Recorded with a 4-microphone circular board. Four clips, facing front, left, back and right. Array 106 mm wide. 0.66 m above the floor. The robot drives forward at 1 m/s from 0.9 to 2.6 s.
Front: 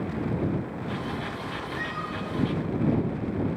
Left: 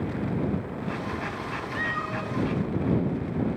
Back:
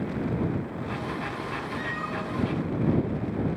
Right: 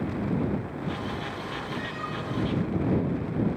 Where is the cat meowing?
70° left, 1.9 m; by 3.6 s 100° left, 1.8 m.